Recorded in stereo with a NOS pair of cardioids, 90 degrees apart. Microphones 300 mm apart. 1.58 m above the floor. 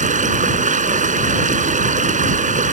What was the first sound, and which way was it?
Running water, 25° right.